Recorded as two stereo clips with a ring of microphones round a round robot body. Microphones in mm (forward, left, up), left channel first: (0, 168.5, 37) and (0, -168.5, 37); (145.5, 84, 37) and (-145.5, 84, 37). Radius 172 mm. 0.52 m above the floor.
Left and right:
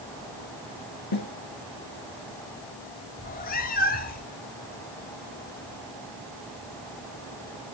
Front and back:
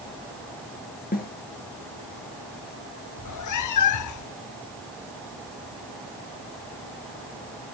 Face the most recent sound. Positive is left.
turn(degrees=25)